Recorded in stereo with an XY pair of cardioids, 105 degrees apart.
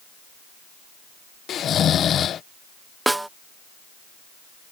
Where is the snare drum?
10° right.